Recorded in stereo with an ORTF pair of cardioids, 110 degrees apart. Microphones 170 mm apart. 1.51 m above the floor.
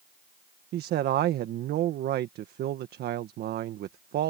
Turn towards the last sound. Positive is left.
turn(degrees=-65)